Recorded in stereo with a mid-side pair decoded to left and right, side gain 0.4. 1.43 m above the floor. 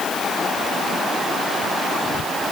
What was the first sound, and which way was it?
Only background noise.